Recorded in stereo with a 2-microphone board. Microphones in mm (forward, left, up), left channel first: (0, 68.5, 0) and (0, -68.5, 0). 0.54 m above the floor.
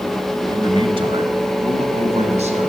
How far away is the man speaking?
About 2.5 m.